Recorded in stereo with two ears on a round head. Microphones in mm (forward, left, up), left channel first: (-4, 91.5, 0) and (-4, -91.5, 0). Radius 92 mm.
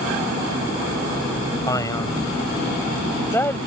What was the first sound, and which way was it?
A man speaking, 20° left (ahead or behind).